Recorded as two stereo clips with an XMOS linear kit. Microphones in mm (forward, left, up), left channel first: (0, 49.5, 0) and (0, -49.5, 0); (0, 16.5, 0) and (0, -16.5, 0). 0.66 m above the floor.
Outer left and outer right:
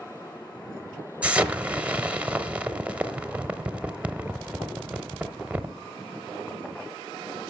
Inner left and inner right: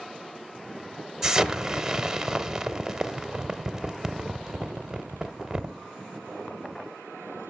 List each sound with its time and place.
1.2 s an explosion: 15° right (ahead or behind), 0.7 m